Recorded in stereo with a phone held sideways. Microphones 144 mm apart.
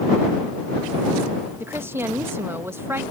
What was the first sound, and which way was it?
A woman speaking, 15° right (ahead or behind).